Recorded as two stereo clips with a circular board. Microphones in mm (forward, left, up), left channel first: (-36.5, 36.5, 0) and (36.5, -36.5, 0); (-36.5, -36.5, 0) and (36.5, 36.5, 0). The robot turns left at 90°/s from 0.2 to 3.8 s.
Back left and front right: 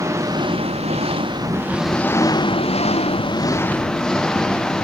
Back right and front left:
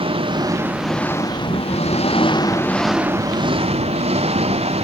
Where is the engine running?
15° left; by 4.8 s 50° left.